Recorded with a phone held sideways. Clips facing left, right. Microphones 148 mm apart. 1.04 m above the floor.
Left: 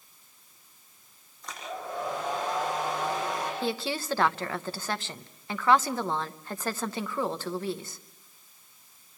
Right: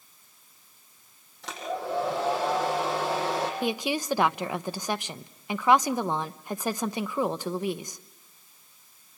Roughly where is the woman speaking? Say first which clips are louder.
Right 3 dB; centre.